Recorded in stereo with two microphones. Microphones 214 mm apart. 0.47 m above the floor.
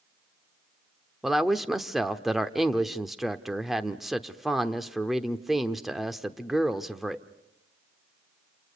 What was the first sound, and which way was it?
A woman speaking, centre (ahead or behind).